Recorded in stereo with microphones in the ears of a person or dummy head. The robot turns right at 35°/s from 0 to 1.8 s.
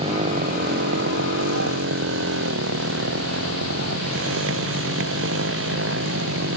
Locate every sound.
0.0 s a motorcycle: 30° right (ahead or behind); by 6.6 s 80° right